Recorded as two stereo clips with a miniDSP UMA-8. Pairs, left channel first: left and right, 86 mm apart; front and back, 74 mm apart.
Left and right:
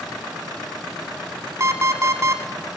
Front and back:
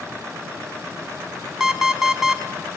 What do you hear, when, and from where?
1.6 s an alarm clock: 100° right, 0.6 m